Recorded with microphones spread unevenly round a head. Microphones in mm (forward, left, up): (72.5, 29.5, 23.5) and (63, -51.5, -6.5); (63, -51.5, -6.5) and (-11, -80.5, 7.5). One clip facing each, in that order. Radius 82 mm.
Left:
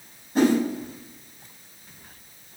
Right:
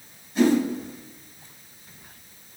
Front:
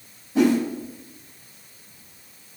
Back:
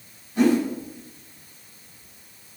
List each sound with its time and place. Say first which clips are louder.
0.3 s a whoosh: even, even; 45° left, 3.5 m